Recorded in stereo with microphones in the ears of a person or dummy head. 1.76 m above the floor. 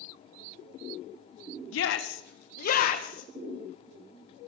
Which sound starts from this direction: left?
A shout, at 1.7 s.